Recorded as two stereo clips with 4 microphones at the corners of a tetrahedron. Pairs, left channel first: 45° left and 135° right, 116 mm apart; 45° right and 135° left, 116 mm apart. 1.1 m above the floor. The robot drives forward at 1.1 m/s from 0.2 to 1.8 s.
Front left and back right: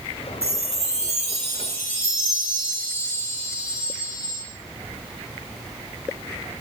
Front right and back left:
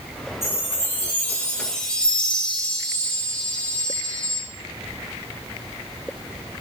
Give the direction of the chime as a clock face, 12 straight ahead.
4 o'clock.